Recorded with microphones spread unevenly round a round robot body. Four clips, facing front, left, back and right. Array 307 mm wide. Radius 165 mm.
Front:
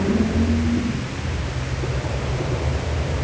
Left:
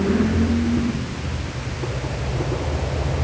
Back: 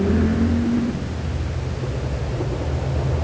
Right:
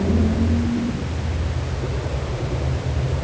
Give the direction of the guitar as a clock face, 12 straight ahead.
I don't hear a guitar.